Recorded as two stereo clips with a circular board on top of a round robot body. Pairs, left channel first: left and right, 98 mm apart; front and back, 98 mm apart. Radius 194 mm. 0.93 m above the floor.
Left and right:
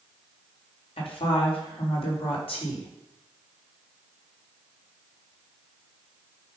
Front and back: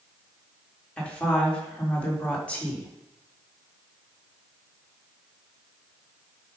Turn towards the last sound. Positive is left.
turn(degrees=75)